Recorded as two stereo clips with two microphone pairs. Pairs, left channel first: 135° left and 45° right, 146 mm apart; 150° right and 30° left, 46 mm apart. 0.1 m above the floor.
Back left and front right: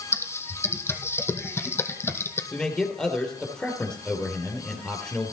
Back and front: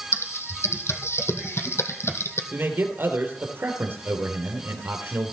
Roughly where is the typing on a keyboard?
Behind right.